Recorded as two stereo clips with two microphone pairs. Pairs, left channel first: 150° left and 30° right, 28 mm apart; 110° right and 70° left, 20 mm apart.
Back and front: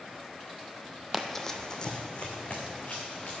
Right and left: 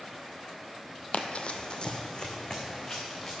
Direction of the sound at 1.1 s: 125° right.